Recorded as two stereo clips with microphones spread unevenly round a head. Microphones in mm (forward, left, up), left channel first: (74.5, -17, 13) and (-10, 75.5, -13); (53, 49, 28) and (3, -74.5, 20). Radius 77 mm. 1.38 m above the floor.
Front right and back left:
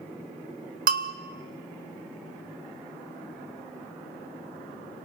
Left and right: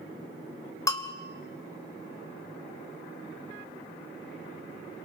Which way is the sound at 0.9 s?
140° left.